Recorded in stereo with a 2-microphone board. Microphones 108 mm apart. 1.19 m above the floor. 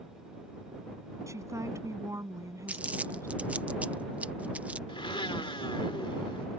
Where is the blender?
50° left (ahead or behind).